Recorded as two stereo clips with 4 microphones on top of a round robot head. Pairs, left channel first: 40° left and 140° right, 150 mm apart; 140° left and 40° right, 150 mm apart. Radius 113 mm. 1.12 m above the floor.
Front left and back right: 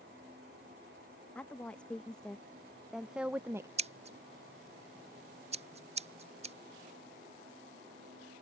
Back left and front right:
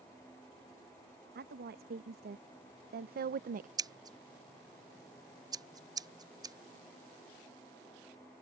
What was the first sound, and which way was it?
A woman speaking, 45° right.